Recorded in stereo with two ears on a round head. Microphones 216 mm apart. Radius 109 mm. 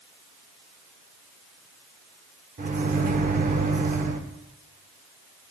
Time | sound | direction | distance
2.6 | a microwave | 30° right (ahead or behind) | 0.8 m